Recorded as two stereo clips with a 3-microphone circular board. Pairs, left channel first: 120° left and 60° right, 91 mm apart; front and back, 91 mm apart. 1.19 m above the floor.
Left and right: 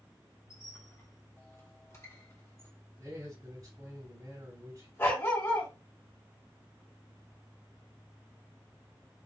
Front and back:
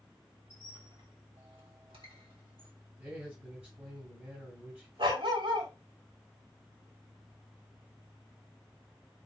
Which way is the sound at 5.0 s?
Straight behind.